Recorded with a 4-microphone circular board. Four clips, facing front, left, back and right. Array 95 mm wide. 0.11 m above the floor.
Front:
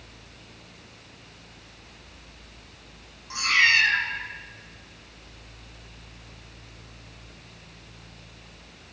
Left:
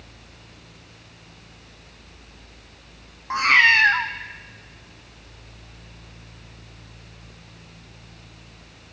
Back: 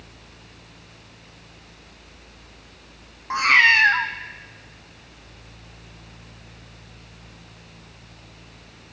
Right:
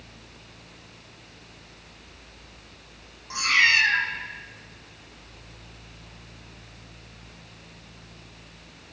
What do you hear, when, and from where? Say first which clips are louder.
3.3 s a cat meowing: left 5 dB, back 6 dB; 135° left, 1.2 m